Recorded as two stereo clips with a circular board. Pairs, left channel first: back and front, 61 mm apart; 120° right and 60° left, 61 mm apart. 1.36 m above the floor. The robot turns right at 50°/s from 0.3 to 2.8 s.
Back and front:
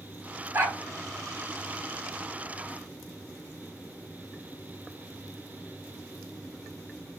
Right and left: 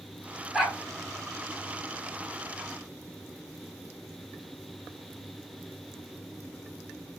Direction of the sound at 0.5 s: 25° right.